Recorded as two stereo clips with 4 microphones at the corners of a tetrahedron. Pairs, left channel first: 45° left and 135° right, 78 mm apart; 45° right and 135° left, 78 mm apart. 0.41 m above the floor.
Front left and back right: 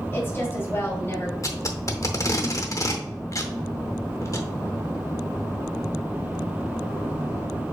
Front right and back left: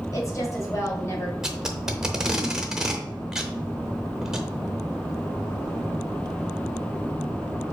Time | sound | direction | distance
0.1 | a woman speaking | 15° right | 1.9 m
1.4 | tape being pulled | 55° left | 0.7 m